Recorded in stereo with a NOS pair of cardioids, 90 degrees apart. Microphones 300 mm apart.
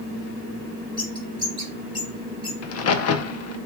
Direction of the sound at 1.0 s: 15° left.